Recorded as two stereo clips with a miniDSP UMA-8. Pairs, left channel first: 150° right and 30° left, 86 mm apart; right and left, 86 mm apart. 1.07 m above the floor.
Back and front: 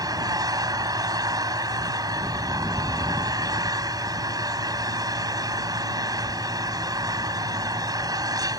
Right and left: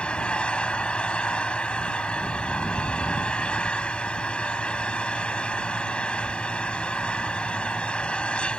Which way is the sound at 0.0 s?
10° right.